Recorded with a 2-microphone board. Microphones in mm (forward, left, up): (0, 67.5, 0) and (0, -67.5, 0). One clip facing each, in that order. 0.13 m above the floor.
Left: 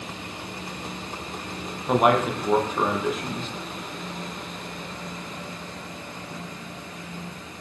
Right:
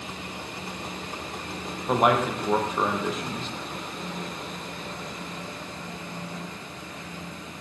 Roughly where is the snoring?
I don't hear snoring.